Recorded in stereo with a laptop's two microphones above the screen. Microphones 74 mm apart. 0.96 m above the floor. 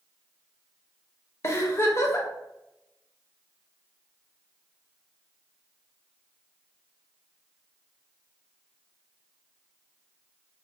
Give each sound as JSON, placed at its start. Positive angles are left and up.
{"t": 1.4, "sound": "a giggle", "side_deg": 40, "distance_m": 0.6}